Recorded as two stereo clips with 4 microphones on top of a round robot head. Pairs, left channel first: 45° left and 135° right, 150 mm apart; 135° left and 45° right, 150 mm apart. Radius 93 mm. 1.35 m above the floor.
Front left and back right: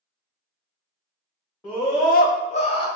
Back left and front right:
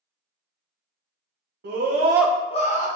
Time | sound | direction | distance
1.6 | a scream | 30° right | 1.0 m